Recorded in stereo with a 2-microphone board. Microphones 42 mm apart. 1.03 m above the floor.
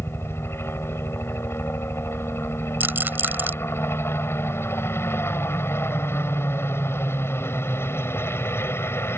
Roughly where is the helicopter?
Left.